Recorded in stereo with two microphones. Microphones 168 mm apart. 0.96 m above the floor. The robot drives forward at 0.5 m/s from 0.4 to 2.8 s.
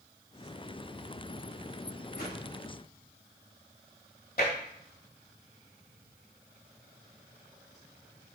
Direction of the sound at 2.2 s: 75° left (ahead or behind).